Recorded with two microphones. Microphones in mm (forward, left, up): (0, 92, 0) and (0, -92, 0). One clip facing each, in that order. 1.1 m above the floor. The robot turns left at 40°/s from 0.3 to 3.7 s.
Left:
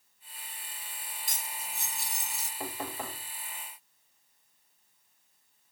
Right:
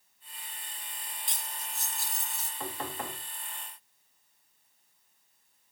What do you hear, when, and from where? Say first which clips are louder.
1.3 s cutlery clinking: left 1 dB; 135° left, 1.0 m; by 2.5 s 85° left, 1.0 m
2.6 s knocking: even; 25° left (ahead or behind), 3 m; by 3.3 s 5° right (ahead or behind), 3 m